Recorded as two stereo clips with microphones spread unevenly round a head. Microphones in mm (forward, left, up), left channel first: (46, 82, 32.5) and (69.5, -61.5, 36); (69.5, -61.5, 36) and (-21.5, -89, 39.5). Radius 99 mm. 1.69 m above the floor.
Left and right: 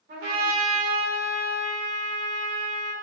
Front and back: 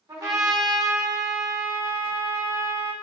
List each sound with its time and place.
0.1 s a trumpet: 110° right, 1.0 m